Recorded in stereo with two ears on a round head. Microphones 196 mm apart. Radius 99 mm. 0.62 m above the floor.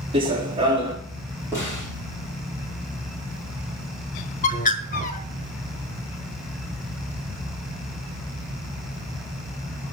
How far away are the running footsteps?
About 1.6 m.